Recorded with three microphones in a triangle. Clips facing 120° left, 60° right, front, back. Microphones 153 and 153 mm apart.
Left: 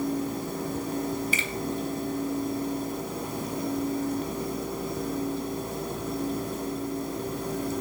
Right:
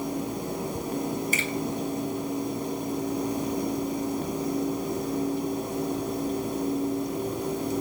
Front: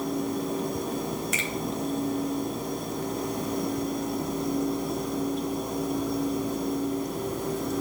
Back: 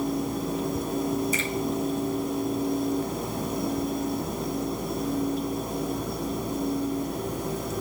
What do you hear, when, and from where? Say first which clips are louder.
1.3 s a finger snap: right 2 dB, back 3 dB; 15° right, 4 m